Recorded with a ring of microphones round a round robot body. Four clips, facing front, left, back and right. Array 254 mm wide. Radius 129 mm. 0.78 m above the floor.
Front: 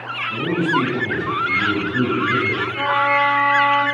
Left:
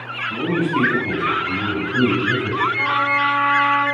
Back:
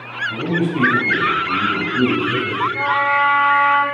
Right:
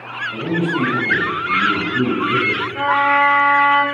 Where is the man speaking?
125° left, 5.5 m; by 2.6 s 85° left, 5 m.